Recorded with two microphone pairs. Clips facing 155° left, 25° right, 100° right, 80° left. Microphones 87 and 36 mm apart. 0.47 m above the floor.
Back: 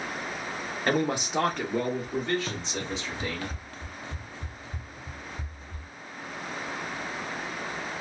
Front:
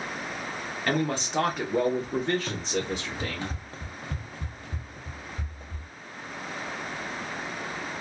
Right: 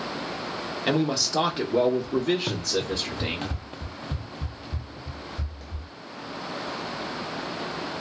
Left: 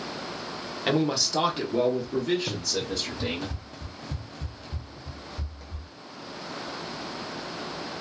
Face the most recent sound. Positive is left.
turn(degrees=0)